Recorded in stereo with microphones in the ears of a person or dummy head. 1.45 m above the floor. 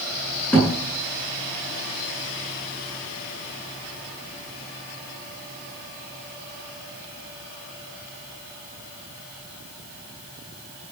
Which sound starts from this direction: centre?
A thud, at 0.5 s.